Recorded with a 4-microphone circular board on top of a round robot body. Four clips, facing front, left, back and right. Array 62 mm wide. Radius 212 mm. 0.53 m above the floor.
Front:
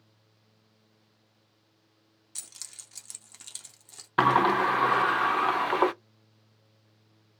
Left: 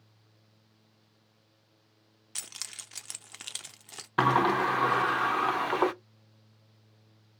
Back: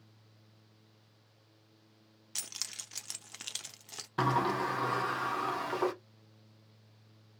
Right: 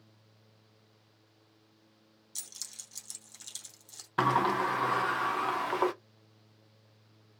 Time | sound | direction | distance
2.4 | keys jangling | 115° left | 0.5 m
4.2 | a sliding door | 15° left | 0.6 m